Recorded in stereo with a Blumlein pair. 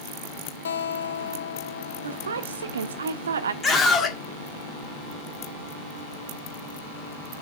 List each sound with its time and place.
0.7 s a guitar: 65° left, 0.6 m
2.0 s a woman speaking: 65° right, 1.3 m
3.6 s a scream: 15° left, 2 m